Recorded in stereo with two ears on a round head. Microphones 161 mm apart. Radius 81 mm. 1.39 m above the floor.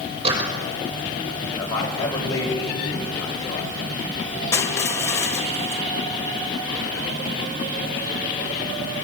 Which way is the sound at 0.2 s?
35° right (ahead or behind).